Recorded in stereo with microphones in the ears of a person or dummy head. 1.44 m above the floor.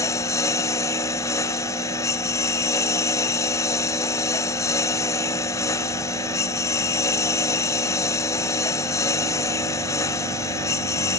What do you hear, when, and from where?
0.0 s a lawn mower: 20° left (ahead or behind)